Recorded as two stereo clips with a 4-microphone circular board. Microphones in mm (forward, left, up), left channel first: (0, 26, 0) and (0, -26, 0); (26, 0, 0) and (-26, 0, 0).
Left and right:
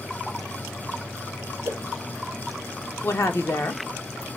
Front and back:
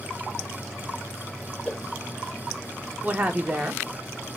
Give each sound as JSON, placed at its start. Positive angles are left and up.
{"t": 1.6, "sound": "a whoosh", "azimuth_deg": -80, "distance_m": 0.7}
{"t": 3.0, "sound": "a woman speaking", "azimuth_deg": 115, "distance_m": 0.8}